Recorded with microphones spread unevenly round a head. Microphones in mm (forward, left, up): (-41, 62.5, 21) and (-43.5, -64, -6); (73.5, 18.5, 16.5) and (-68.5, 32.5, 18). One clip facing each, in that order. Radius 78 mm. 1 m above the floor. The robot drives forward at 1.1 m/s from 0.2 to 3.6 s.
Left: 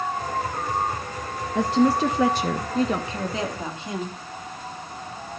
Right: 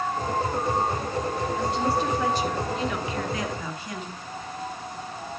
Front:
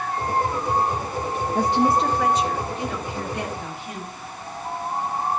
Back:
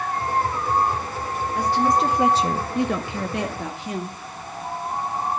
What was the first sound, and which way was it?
A woman speaking, 50° left.